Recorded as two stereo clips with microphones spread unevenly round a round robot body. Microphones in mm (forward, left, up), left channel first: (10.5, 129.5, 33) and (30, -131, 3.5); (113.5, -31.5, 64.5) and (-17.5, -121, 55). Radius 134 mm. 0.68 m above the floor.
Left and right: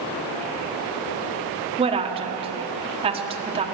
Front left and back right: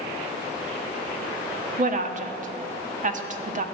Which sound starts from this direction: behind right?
A woman speaking, at 1.8 s.